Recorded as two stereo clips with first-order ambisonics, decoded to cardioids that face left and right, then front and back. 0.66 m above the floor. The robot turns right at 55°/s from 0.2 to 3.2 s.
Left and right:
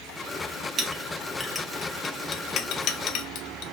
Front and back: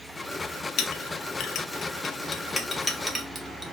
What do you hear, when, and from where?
0.8 s a clink: 30° right, 0.6 m; by 3.6 s 100° left, 0.6 m